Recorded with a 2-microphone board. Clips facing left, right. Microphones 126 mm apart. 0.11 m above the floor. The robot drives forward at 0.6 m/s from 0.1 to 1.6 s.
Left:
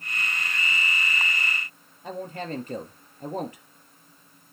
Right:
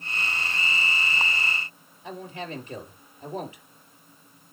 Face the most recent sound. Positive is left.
turn(degrees=50)  # may be behind; listen again after turning